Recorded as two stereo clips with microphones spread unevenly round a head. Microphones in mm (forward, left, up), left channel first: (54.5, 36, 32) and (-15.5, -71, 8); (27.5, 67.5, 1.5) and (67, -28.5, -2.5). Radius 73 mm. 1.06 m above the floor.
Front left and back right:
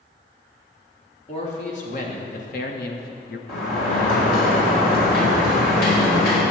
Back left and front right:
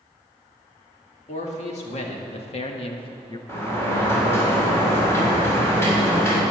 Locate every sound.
1.3 s a man speaking: 105° left, 2 m; by 3.4 s 65° left, 1.0 m
3.5 s a sliding door: 50° left, 3.5 m